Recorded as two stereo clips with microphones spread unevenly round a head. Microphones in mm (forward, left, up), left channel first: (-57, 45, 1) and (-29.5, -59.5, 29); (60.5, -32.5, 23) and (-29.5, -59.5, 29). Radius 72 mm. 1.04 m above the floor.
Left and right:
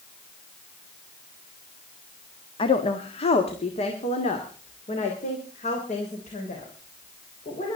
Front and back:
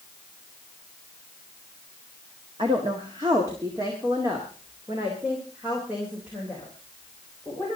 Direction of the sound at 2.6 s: 140° left.